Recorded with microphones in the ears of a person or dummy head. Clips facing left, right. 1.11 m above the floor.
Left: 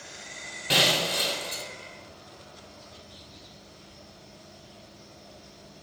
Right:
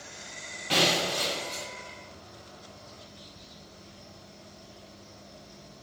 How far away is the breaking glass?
About 0.9 m.